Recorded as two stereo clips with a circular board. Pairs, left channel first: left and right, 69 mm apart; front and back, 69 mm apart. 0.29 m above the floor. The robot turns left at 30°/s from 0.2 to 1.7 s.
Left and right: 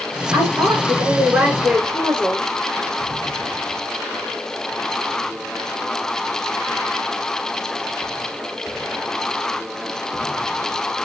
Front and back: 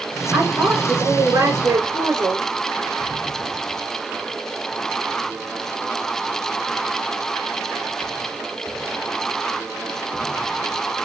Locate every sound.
0.3 s a woman speaking: 120° right, 4 m; by 2.5 s 160° right, 4 m